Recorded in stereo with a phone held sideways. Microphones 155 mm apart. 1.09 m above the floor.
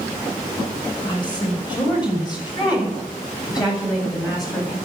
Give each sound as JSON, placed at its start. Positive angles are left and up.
{"t": 1.0, "sound": "a woman speaking", "side_deg": 30, "distance_m": 6.0}